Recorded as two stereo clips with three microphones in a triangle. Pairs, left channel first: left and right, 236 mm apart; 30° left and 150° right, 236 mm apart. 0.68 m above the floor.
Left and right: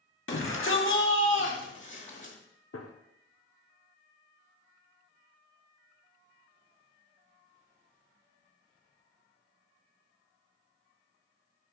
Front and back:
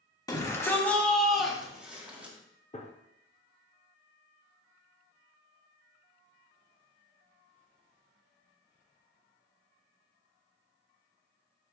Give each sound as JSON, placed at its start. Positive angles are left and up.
{"t": 0.3, "sound": "a shout", "azimuth_deg": 100, "distance_m": 1.4}
{"t": 2.7, "sound": "a gunshot", "azimuth_deg": 90, "distance_m": 0.7}